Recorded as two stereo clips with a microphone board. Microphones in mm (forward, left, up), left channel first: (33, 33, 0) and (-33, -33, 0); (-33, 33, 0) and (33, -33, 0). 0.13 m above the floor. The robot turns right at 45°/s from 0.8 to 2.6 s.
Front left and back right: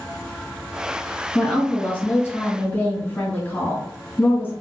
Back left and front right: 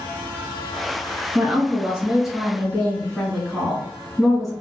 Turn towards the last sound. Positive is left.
turn(degrees=45)